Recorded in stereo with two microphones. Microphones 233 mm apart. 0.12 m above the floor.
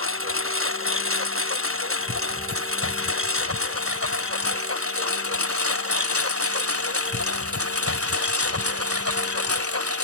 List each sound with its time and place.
0.0 s a lawn mower: 65° right (ahead or behind); by 10.1 s 85° right